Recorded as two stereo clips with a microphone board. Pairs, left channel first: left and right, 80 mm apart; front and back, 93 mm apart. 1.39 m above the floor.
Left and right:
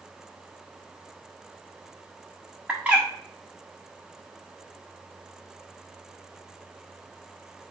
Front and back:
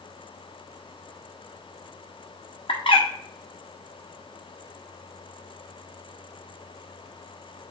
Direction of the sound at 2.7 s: 15° right.